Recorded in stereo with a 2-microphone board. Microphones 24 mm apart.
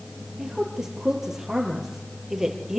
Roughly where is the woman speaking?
Centre.